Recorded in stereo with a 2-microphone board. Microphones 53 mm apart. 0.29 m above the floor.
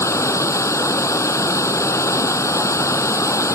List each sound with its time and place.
0.0 s running water: 80° left